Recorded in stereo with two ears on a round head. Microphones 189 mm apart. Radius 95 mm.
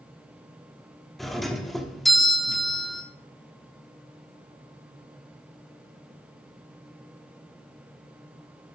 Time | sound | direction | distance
1.2 | a doorbell | centre (ahead or behind) | 1.2 m